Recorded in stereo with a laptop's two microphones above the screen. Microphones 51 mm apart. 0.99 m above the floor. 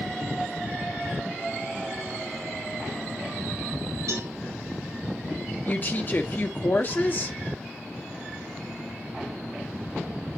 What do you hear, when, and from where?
4.1 s a cowbell: 75° right (ahead or behind), 5 m
5.7 s a woman speaking: 35° left (ahead or behind), 0.7 m